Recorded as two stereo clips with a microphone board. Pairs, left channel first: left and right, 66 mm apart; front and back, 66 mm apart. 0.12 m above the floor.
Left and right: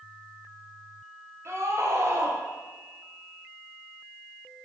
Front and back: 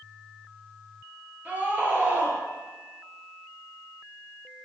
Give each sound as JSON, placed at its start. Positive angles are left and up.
{"t": 1.4, "sound": "a scream", "azimuth_deg": -120, "distance_m": 2.5}